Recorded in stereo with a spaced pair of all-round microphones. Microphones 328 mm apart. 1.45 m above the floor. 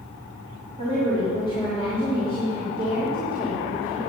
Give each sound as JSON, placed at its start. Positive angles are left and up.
{"t": 0.8, "sound": "a woman speaking", "side_deg": 15, "distance_m": 3.5}